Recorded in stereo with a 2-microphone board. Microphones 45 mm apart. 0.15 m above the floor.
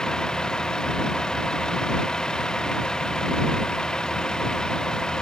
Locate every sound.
0.0 s a vehicle: 15° left (ahead or behind)